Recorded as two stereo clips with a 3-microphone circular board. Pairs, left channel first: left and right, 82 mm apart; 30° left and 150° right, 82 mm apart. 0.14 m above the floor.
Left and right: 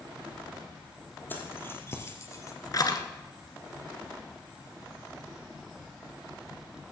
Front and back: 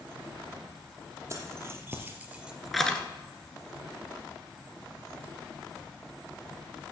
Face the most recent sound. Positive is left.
turn(degrees=100)